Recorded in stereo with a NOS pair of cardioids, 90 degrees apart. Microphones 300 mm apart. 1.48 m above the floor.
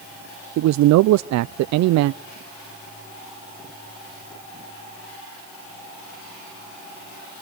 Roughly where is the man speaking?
Right.